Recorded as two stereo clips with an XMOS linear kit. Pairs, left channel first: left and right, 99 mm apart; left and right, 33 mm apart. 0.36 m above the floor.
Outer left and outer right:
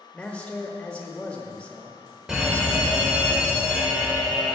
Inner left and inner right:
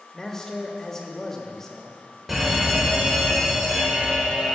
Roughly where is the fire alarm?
Centre.